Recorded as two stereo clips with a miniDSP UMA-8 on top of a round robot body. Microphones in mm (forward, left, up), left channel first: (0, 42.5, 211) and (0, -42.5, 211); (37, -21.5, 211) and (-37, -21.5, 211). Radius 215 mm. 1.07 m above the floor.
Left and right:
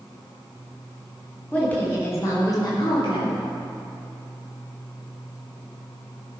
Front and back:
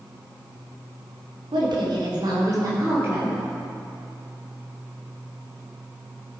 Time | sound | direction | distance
1.5 | a woman speaking | 165° left | 3 m